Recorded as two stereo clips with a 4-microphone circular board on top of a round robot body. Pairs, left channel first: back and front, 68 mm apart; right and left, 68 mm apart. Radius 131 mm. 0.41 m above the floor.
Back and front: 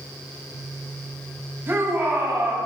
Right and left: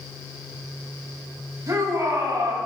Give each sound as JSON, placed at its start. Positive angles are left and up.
{"t": 1.7, "sound": "a shout", "azimuth_deg": 55, "distance_m": 3.0}